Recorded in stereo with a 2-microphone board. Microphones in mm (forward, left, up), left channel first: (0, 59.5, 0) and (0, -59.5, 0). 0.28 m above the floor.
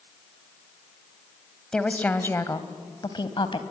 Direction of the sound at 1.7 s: 5° left (ahead or behind).